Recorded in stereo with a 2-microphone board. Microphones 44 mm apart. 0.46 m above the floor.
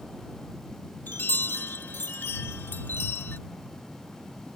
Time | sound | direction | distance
1.1 | a chime | 50° left (ahead or behind) | ?